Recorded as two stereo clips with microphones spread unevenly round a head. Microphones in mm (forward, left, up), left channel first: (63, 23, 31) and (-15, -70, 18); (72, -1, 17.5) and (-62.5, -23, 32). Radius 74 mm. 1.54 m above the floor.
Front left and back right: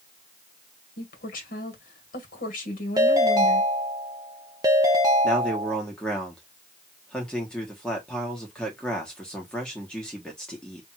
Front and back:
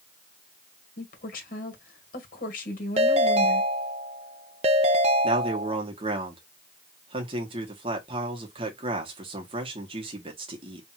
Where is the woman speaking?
40° left, 1.9 m.